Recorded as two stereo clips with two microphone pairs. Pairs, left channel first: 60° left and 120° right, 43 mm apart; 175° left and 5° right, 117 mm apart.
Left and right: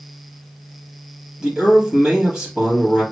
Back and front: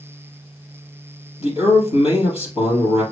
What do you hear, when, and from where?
1.4 s a man speaking: 165° left, 3 m